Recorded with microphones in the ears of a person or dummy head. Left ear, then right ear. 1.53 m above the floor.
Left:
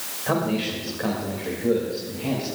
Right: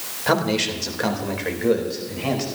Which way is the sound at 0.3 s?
85° right.